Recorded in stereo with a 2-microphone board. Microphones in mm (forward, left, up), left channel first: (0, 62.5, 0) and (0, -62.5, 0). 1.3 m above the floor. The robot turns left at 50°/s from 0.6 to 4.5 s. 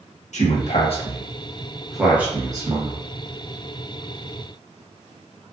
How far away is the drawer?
No drawer in this recording.